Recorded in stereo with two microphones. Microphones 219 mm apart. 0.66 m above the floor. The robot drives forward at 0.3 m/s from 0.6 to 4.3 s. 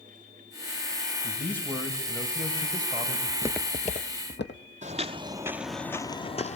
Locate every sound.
1.2 s a man speaking: 10° left (ahead or behind), 3 m
3.3 s footsteps: 35° right (ahead or behind), 0.7 m; by 4.6 s 55° left (ahead or behind), 1.9 m
4.8 s footsteps: 35° right (ahead or behind), 0.8 m; by 6.6 s 30° left (ahead or behind), 0.8 m